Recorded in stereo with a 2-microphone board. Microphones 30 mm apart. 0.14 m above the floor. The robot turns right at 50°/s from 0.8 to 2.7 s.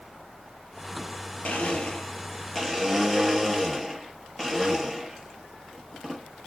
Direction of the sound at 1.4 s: 120° left.